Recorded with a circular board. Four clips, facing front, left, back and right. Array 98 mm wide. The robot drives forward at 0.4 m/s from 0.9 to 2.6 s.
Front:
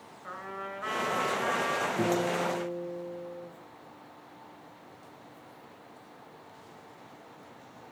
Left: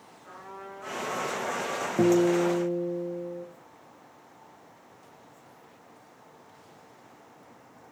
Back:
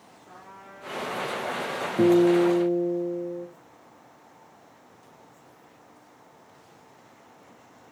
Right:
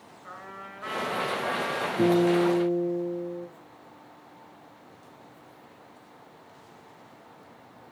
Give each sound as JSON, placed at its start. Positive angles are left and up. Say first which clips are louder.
{"t": 0.2, "sound": "a trumpet", "louder": "even, front 8 dB", "azimuth_deg": -25, "distance_m": 3.0}
{"t": 2.0, "sound": "a guitar", "louder": "even, back 14 dB", "azimuth_deg": 115, "distance_m": 3.5}